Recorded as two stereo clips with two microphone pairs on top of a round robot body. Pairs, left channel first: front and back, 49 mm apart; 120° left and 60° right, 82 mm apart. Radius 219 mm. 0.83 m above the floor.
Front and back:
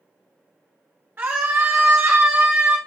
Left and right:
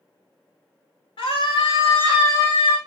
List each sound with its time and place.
1.2 s a scream: 135° left, 3 m; by 2.8 s 115° left, 1.7 m